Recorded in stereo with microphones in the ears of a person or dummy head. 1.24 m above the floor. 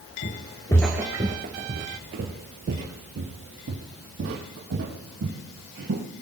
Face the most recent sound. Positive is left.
turn(degrees=-75)  # may be behind; listen again after turning